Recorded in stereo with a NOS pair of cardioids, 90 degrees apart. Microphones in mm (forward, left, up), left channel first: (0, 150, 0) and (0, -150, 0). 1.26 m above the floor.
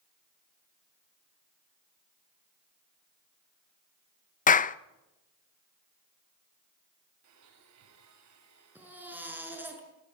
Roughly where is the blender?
Ahead right.